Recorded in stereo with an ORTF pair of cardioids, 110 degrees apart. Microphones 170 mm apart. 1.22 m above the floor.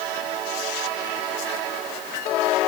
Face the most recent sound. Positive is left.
No sound to turn to.